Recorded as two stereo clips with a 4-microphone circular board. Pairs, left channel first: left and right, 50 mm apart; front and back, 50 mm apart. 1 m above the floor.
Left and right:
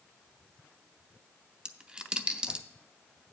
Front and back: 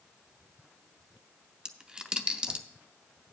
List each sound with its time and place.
1.6 s a dropped coin: 130° right, 0.6 m